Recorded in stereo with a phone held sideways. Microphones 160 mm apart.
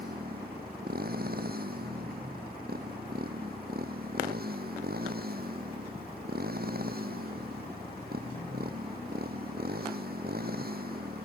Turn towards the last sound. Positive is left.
turn(degrees=-75)  # may be behind; listen again after turning